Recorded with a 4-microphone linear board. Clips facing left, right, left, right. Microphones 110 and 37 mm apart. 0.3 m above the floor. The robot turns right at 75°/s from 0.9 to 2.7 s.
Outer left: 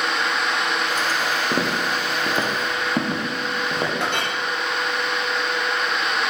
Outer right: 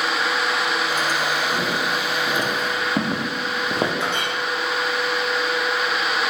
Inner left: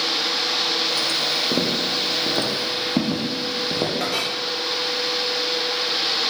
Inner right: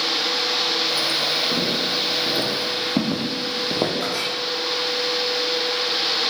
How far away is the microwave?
No microwave in this recording.